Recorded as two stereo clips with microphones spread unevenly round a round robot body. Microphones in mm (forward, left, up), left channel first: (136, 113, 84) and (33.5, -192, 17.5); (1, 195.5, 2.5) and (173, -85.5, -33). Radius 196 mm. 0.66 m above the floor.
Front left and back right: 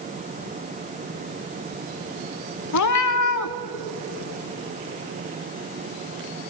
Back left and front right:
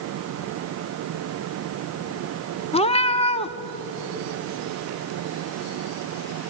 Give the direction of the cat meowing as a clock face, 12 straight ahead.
10 o'clock.